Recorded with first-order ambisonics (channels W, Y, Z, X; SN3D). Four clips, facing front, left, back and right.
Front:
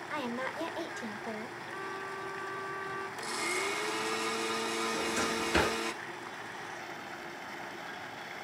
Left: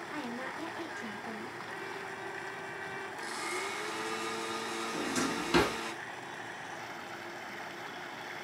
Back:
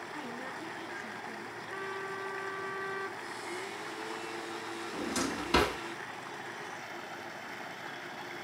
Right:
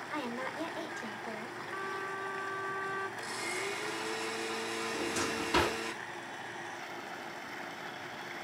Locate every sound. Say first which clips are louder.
0.1 s a woman speaking: right 2 dB, front 8 dB; 10° right, 1.1 m
1.7 s a trumpet: right 6 dB, back 2 dB; 135° left, 3.5 m
3.2 s a blender: even, front 6 dB; 5° left, 0.9 m
4.9 s a drawer: left 2 dB, front 2 dB; 150° left, 4.5 m